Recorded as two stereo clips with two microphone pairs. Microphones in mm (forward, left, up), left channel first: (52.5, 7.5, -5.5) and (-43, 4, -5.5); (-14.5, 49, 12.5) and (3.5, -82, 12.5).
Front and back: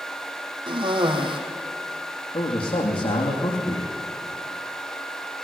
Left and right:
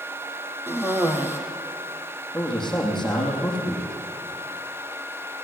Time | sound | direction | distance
0.7 | a cough | 155° right | 4.5 m
2.3 | a man speaking | 10° left | 6 m